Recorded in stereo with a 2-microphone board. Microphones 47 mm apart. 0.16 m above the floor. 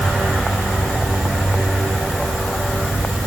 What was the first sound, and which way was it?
Only background noise.